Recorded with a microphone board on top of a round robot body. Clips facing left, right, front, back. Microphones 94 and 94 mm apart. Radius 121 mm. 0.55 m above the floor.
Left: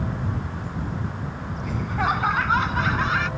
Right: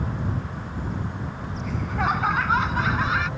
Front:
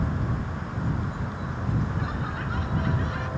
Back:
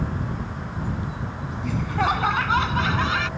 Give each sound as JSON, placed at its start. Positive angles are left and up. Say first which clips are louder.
{"t": 1.6, "sound": "laughter", "louder": "left 1 dB, back 8 dB", "azimuth_deg": 180}